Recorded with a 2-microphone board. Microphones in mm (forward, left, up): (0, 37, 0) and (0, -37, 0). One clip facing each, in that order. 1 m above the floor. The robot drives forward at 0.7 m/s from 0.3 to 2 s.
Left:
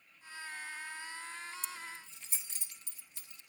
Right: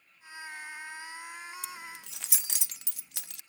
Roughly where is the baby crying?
I don't hear a baby crying.